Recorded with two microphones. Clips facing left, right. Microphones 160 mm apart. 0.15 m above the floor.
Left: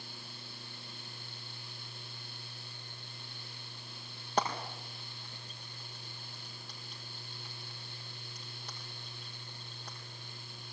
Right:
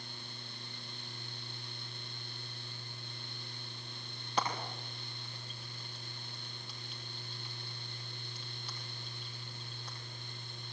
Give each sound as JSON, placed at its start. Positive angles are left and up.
{"t": 4.4, "sound": "frying", "side_deg": 45, "distance_m": 5.5}